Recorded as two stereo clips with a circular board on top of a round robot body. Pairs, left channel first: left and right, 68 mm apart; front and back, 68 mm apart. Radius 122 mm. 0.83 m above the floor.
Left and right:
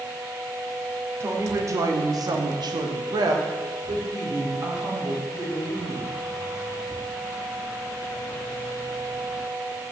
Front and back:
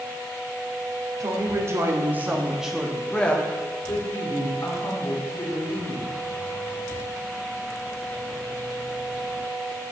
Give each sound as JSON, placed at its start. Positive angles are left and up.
{"t": 1.2, "sound": "a woman speaking", "azimuth_deg": -140, "distance_m": 2.0}